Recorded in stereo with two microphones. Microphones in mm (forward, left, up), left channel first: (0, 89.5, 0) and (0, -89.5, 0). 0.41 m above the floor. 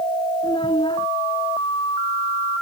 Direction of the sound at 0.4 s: 25° left (ahead or behind).